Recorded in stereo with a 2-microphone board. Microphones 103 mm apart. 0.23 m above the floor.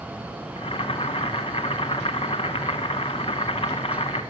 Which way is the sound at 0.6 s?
65° left (ahead or behind).